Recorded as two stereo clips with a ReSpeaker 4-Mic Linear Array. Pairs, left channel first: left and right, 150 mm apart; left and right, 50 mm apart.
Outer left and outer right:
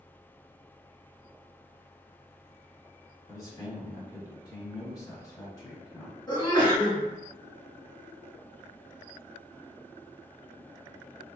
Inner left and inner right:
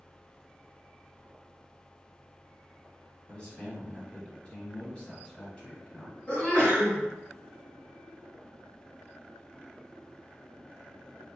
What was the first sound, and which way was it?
A man speaking, 25° left (ahead or behind).